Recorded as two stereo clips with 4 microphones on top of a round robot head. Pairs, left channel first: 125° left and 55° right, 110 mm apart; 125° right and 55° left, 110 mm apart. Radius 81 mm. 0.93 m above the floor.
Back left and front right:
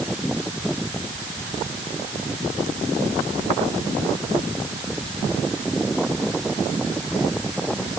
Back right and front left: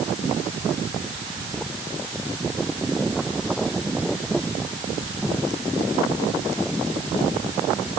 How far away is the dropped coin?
I don't hear a dropped coin.